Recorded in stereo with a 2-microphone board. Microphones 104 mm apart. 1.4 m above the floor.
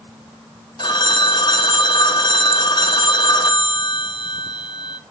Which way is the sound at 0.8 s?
45° left (ahead or behind).